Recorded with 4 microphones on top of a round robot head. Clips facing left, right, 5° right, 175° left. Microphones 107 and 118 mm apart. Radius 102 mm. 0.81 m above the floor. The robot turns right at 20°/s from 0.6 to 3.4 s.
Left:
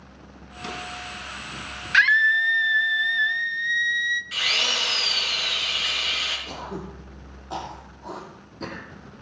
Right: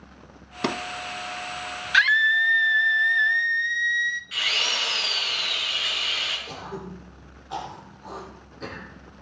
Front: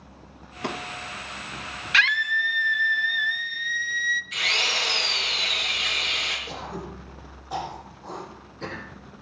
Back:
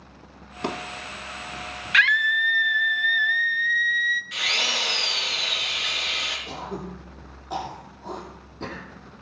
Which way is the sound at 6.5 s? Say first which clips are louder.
Left 2 dB, back 4 dB; 140° left.